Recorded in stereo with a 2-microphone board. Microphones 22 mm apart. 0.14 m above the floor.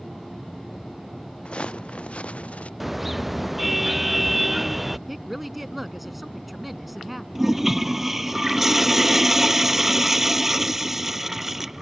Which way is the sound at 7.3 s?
15° right (ahead or behind).